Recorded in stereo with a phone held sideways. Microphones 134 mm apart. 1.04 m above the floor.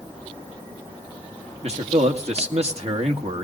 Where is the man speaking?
50° right (ahead or behind), 1.8 m.